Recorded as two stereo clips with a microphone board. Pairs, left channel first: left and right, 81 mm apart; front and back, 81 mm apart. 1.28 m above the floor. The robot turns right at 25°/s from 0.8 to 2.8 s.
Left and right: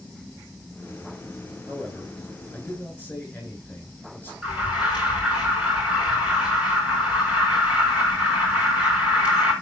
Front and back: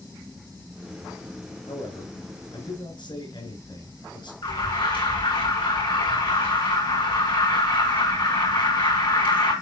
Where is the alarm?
15° right, 6.5 m.